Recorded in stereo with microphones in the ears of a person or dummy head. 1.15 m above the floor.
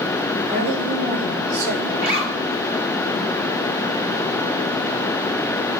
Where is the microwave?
No microwave in this recording.